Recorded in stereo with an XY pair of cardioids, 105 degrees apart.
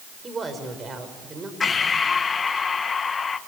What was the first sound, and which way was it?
A woman speaking, 30° right.